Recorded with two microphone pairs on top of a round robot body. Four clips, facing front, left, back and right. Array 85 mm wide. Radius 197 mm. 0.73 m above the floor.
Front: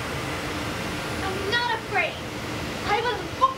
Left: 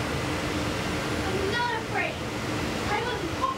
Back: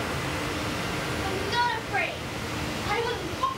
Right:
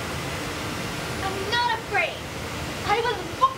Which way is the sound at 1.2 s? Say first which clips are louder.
Right 5 dB, front 1 dB; 45° right.